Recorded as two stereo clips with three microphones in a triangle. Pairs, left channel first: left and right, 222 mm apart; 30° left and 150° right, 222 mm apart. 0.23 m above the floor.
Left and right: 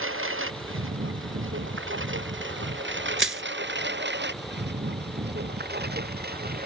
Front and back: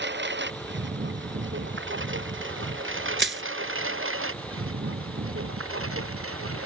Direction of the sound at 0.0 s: 115° right.